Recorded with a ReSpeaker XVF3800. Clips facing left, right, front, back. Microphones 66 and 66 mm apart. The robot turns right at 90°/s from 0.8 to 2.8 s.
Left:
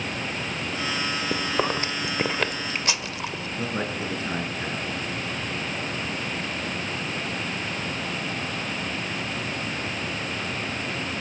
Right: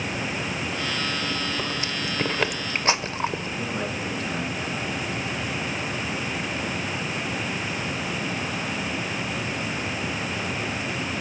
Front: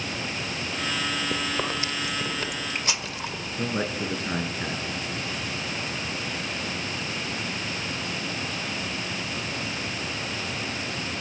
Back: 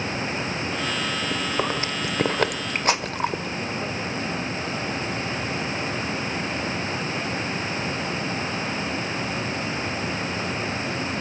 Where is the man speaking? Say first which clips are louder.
Left 3 dB, front 1 dB; 30° left, 4.5 m.